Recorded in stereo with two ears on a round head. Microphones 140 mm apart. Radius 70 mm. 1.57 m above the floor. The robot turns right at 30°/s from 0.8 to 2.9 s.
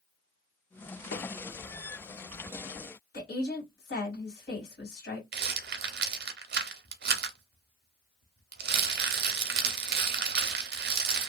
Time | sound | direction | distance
1.1 | a microwave | 75° left (ahead or behind) | 0.8 m
3.1 | a woman speaking | 80° left | 1.7 m
5.3 | a rattle | 70° right (ahead or behind) | 0.6 m